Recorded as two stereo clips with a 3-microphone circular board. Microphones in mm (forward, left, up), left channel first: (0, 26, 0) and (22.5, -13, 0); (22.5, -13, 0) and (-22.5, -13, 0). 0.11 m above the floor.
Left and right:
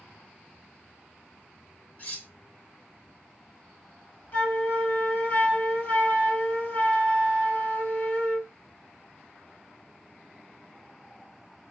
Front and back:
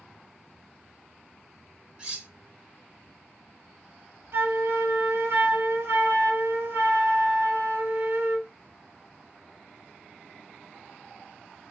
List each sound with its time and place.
2.0 s cutlery clinking: 130° left, 1.0 m
4.3 s a flute: 165° left, 1.5 m